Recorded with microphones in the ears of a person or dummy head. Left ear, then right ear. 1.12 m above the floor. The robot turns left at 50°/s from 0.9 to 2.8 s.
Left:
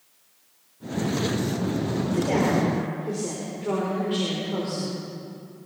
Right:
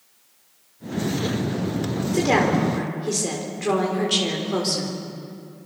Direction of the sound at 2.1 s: 45° right.